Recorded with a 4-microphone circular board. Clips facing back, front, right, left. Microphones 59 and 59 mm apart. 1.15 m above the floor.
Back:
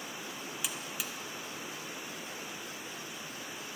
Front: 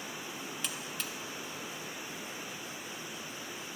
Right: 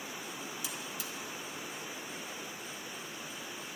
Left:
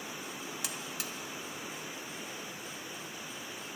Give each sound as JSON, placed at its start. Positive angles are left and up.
{"t": 0.6, "sound": "a buzzer", "azimuth_deg": 100, "distance_m": 0.8}